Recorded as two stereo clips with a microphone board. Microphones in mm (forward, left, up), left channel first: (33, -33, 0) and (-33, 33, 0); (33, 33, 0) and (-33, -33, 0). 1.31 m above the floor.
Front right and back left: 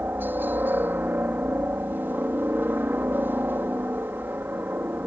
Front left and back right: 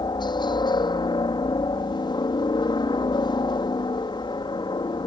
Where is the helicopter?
70° left.